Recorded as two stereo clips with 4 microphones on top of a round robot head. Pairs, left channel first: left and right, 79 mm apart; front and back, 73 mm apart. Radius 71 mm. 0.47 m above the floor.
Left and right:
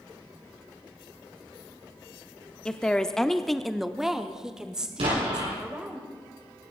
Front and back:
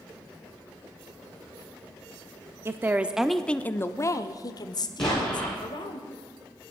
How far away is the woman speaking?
About 0.8 m.